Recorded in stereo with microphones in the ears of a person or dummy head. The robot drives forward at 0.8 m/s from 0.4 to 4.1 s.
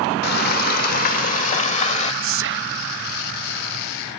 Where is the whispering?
60° right (ahead or behind); by 2.9 s 45° right (ahead or behind).